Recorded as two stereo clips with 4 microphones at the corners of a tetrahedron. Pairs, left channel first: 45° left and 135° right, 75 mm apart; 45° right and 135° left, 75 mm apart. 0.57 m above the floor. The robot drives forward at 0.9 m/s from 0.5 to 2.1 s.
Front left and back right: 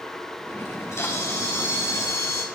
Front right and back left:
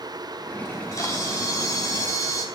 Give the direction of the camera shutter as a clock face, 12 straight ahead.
12 o'clock.